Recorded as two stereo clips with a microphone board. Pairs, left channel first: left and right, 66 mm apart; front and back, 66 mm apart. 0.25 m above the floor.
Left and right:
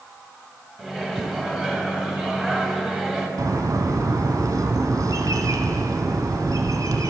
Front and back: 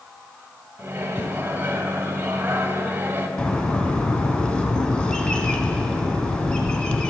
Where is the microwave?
170° right, 1.0 m.